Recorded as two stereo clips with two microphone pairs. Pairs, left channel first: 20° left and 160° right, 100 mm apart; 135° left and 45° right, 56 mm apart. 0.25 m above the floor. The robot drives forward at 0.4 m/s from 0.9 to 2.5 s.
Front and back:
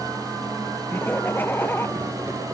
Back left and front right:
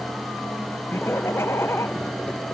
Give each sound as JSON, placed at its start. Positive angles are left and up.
{"t": 0.9, "sound": "laughter", "azimuth_deg": 95}